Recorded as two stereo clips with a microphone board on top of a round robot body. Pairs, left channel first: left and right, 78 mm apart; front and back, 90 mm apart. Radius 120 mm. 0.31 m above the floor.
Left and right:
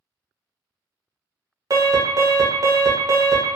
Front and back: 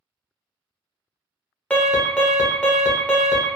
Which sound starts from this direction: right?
An alarm, at 1.7 s.